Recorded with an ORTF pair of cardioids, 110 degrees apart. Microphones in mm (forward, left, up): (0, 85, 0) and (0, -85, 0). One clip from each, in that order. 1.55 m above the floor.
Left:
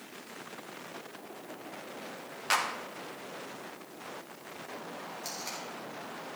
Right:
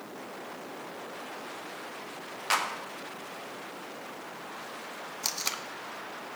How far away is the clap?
About 1.6 m.